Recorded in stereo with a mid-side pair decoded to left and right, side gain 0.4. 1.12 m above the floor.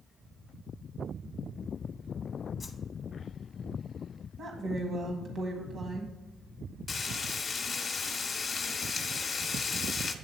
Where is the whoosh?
40° left, 1.0 m.